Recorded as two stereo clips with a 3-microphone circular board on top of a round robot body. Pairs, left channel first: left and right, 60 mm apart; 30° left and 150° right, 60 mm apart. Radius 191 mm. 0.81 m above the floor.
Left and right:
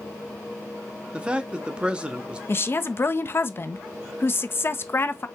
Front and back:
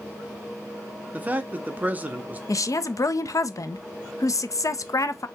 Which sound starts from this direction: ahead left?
A woman speaking, at 2.5 s.